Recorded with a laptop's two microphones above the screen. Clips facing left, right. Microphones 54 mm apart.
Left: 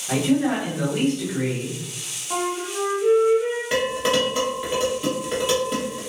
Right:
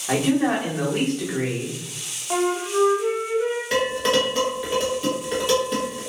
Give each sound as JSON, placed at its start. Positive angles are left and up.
{"t": 0.1, "sound": "a man speaking", "side_deg": -45, "distance_m": 1.0}
{"t": 2.3, "sound": "a flute", "side_deg": -45, "distance_m": 0.9}
{"t": 3.7, "sound": "dishes clattering", "side_deg": 5, "distance_m": 0.9}